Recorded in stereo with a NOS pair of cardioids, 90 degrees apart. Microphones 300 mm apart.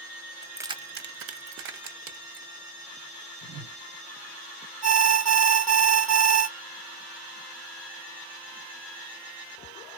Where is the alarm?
60° right, 1.0 m.